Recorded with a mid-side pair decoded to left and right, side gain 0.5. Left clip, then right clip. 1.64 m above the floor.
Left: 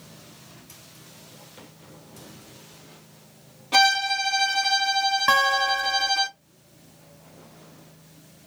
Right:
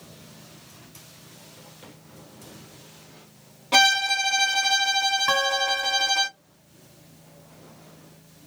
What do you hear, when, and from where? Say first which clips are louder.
3.7 s a violin: right 1 dB; 30° right, 1.5 m
5.3 s a guitar: left 3 dB; 30° left, 0.7 m